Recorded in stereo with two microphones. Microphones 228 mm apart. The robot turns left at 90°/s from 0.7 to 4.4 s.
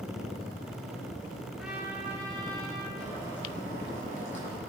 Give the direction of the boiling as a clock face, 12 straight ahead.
6 o'clock.